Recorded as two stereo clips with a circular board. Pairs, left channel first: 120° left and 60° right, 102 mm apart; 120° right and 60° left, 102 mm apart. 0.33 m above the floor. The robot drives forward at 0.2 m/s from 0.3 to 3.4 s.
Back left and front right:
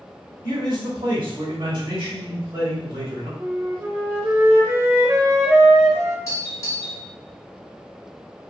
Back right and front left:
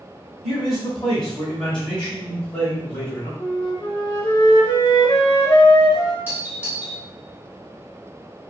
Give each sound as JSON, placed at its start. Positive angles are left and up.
{"t": 0.4, "sound": "a man speaking", "azimuth_deg": -35, "distance_m": 1.1}
{"t": 3.4, "sound": "a flute", "azimuth_deg": -115, "distance_m": 0.5}
{"t": 6.3, "sound": "a doorbell", "azimuth_deg": 115, "distance_m": 1.4}